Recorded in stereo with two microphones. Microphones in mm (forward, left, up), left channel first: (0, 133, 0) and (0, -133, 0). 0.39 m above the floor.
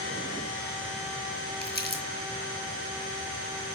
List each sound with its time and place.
1.6 s crumpling: 40° left (ahead or behind), 2.5 m